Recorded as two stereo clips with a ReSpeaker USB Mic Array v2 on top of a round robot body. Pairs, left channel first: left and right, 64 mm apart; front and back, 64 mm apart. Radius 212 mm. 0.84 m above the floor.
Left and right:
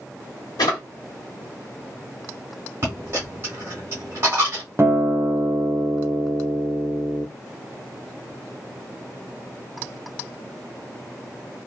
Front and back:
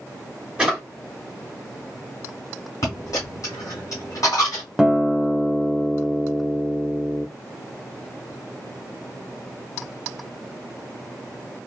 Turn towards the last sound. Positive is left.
turn(degrees=-100)